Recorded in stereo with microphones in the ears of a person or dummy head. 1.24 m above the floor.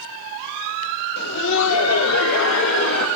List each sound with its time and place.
1.2 s laughter: 55° left (ahead or behind), 1.0 m; by 3.1 s 65° left (ahead or behind), 1.9 m